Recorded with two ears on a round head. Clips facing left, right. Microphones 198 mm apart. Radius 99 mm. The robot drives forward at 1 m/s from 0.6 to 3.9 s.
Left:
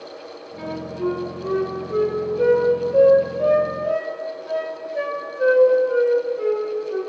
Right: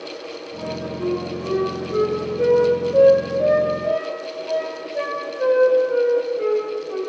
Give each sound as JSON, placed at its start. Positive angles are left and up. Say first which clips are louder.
{"t": 0.6, "sound": "a flute", "louder": "left 1 dB", "side_deg": 25, "distance_m": 3.5}